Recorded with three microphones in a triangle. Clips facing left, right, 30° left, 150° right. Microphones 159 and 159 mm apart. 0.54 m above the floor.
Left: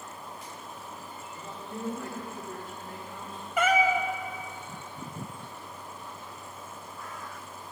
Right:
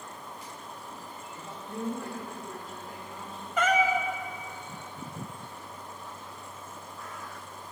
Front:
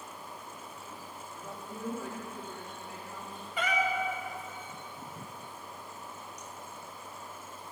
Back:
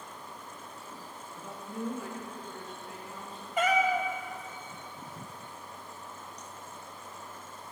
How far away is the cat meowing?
About 0.6 m.